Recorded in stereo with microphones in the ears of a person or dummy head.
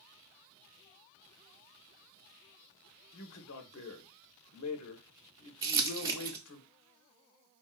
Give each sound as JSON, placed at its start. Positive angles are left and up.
{"t": 3.1, "sound": "a man speaking", "side_deg": 80, "distance_m": 1.0}
{"t": 5.6, "sound": "crumpling", "side_deg": -20, "distance_m": 0.6}